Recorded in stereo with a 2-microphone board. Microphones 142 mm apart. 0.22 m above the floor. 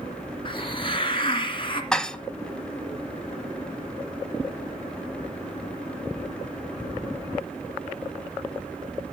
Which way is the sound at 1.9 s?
5° left (ahead or behind).